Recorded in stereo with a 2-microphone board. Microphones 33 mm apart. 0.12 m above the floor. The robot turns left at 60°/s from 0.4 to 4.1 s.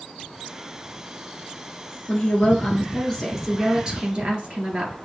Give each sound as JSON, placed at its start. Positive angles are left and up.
{"t": 2.1, "sound": "a woman speaking", "azimuth_deg": 80, "distance_m": 1.8}